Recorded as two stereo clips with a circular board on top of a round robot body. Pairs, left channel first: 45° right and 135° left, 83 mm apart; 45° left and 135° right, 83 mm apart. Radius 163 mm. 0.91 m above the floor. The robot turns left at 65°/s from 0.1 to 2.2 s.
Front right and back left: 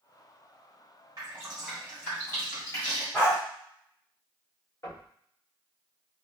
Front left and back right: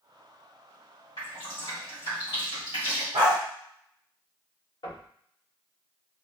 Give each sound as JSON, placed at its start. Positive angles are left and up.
{"t": 1.2, "sound": "dripping", "azimuth_deg": 85, "distance_m": 1.5}
{"t": 3.1, "sound": "a dog barking", "azimuth_deg": -115, "distance_m": 0.8}
{"t": 4.8, "sound": "knocking", "azimuth_deg": 10, "distance_m": 1.2}